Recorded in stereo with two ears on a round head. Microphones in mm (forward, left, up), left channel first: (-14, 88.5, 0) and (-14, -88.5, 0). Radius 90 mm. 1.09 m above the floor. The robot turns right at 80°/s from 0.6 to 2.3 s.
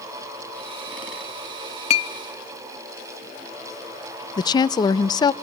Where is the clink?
35° left (ahead or behind), 1.0 m; by 2.1 s 15° left (ahead or behind), 1.0 m.